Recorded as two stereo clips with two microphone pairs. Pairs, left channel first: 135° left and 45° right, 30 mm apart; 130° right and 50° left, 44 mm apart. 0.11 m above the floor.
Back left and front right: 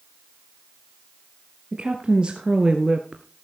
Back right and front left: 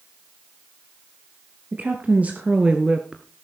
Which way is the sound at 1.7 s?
5° left.